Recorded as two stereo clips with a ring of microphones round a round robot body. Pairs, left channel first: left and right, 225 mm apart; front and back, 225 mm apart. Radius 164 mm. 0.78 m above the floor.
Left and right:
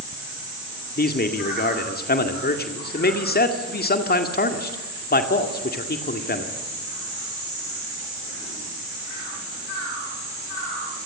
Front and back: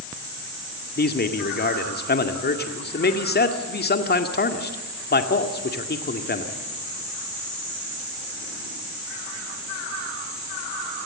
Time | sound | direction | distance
1.0 | a man speaking | 45° left | 2 m